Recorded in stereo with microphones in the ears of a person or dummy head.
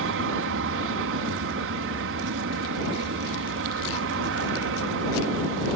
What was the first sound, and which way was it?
An aircraft, 65° right (ahead or behind).